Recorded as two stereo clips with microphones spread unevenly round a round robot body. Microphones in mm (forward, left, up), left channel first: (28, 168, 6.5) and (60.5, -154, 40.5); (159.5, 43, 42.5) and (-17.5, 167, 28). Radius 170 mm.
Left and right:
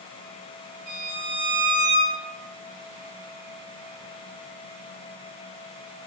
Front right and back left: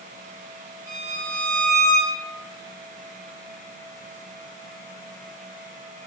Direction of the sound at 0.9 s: 140° right.